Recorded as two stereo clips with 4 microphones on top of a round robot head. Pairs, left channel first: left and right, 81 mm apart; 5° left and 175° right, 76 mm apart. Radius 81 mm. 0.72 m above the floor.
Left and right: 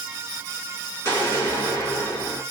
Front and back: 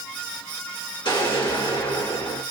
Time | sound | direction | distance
1.1 | an explosion | 35° left | 2.5 m